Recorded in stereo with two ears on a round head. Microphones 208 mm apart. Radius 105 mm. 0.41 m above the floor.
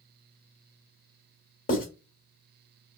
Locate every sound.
1.7 s writing: 40° left (ahead or behind), 1.5 m